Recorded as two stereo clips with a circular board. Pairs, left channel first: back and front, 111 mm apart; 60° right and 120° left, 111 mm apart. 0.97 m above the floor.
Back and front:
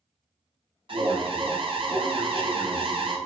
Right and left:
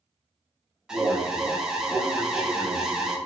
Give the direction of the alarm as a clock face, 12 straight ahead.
11 o'clock.